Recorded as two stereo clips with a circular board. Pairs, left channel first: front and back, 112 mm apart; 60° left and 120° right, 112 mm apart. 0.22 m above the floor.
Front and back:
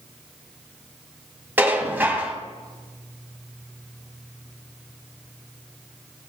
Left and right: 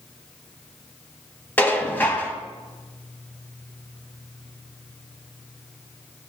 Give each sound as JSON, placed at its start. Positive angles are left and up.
{"t": 1.6, "sound": "dishes clattering", "azimuth_deg": 120, "distance_m": 0.8}